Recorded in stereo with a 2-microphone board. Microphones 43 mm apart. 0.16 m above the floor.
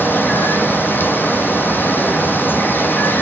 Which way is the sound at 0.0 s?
50° left (ahead or behind).